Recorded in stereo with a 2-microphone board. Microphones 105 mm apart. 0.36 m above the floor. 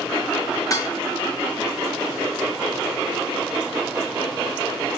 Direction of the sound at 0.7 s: 35° left (ahead or behind).